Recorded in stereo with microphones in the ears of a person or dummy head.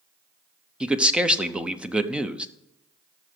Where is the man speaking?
Centre (ahead or behind), 0.7 m.